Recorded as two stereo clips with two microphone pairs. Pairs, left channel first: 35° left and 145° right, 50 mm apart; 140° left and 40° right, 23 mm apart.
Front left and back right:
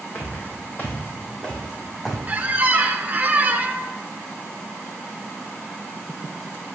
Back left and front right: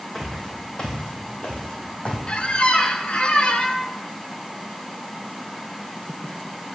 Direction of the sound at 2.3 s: 165° left.